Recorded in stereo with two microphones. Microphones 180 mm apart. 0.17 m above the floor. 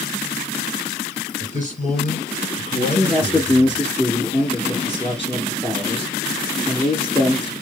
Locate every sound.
1.4 s a man speaking: 50° left (ahead or behind), 2 m
2.8 s a man speaking: 30° left (ahead or behind), 2 m